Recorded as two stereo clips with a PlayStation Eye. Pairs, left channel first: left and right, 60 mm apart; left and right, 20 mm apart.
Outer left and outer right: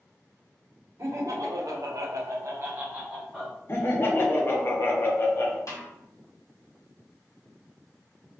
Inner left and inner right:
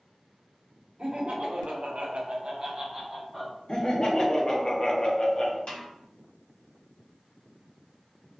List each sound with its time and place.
1.0 s laughter: 65° right (ahead or behind), 0.9 m; by 3.6 s 5° right (ahead or behind), 0.8 m
3.7 s laughter: 40° left (ahead or behind), 0.6 m
5.7 s a snare drum: 65° left (ahead or behind), 1.3 m